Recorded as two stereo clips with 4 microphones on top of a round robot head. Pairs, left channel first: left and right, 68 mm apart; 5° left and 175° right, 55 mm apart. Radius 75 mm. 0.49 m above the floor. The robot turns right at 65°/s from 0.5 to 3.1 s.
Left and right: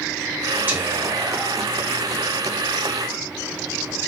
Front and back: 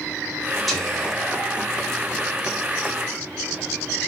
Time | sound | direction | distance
0.7 | whispering | 85° right | 1.4 m